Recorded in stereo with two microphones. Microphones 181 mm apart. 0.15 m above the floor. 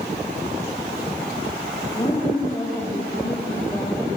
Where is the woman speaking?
25° left (ahead or behind), 6 m.